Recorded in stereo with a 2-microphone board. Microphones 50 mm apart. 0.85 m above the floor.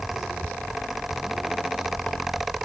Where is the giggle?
I don't hear a giggle.